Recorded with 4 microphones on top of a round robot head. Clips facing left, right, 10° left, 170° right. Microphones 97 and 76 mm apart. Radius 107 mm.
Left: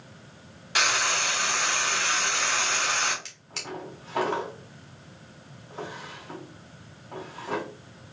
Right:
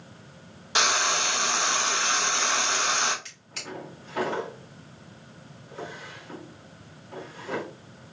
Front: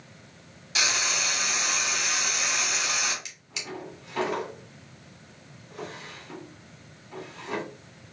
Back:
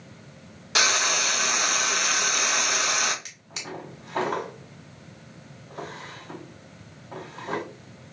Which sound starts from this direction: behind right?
Frying, at 0.8 s.